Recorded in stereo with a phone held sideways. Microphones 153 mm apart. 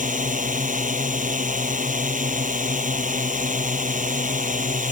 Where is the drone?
60° right (ahead or behind).